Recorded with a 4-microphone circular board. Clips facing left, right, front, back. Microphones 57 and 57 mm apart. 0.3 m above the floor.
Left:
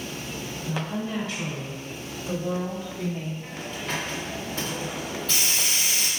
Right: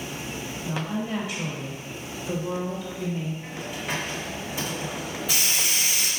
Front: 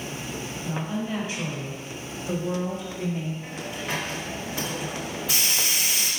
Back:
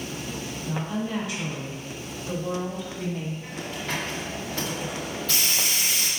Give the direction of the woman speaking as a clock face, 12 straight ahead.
2 o'clock.